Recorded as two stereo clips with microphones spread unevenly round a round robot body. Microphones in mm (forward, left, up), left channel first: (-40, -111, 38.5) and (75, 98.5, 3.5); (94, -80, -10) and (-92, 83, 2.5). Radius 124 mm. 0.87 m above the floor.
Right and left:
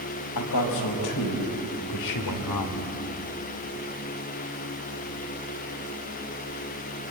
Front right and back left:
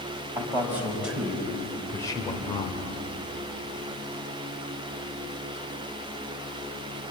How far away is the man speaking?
About 5 m.